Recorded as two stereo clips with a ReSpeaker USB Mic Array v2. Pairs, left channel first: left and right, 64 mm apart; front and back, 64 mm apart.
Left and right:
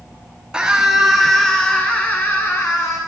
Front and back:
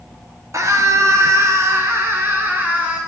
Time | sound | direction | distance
0.5 | a scream | 165° right | 3 m